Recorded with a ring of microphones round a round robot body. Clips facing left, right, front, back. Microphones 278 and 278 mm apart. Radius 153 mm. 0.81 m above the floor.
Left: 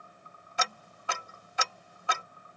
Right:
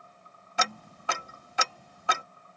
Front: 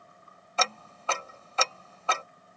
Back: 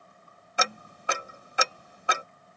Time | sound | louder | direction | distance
0.6 | ticking | right 3 dB, even | 105° right | ?